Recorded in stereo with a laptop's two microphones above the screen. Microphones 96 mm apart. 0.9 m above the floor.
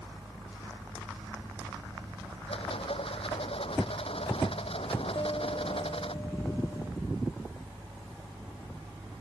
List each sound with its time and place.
0.0 s a fan: 75° right (ahead or behind)
2.5 s a rattle: 75° left (ahead or behind)
5.2 s a piano: 50° left (ahead or behind)